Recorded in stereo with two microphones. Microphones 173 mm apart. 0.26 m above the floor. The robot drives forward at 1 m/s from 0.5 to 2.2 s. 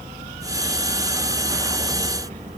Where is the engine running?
45° right (ahead or behind); by 2.6 s 40° right (ahead or behind).